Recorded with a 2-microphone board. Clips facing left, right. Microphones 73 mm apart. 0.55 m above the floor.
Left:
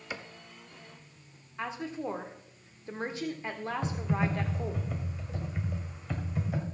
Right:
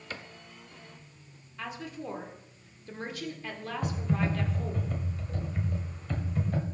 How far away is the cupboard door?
About 0.7 m.